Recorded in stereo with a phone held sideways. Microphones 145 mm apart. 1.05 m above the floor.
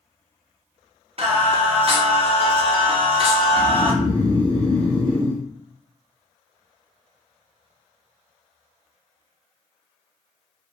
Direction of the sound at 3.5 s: 30° right (ahead or behind).